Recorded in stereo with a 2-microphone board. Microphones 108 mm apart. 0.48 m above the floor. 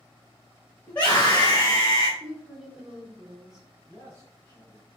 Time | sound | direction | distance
0.9 | a scream | 10° left (ahead or behind) | 1.9 m
2.2 | a woman speaking | 5° right (ahead or behind) | 1.3 m
3.9 | a man speaking | 20° left (ahead or behind) | 2.5 m